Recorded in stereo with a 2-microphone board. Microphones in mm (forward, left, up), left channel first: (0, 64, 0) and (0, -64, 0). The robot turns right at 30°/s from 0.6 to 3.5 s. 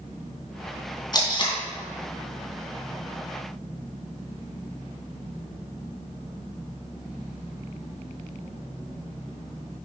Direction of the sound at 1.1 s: 30° left (ahead or behind).